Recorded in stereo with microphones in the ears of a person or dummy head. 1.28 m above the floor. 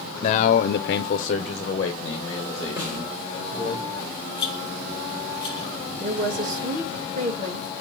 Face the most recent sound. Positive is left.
turn(degrees=-50)  # may be behind; listen again after turning